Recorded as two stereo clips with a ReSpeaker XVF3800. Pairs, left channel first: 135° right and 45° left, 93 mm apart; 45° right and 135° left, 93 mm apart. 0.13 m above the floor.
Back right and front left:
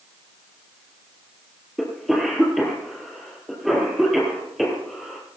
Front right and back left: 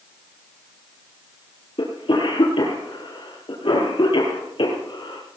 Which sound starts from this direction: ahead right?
A cough, at 1.8 s.